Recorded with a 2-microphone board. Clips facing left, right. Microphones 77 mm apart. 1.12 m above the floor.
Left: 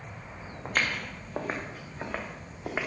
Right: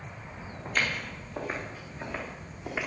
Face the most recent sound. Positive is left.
turn(degrees=30)  # may be behind; listen again after turning